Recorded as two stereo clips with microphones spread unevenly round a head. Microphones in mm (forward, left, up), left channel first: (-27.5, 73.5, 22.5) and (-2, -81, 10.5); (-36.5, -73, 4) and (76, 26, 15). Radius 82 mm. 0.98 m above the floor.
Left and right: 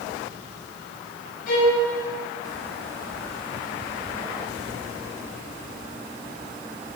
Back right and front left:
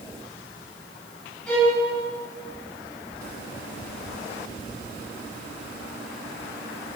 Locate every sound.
1.5 s a violin: 135° left, 6.5 m